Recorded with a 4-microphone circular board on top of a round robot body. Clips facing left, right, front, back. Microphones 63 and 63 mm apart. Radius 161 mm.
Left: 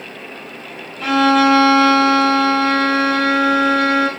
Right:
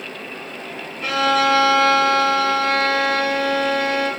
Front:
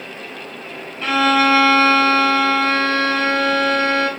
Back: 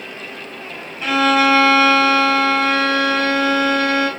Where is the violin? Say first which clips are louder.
Left 5 dB, even; 100° left, 3.5 m.